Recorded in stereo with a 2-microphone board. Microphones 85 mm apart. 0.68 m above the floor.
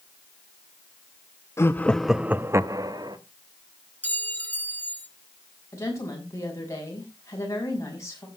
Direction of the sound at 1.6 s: 30° left (ahead or behind).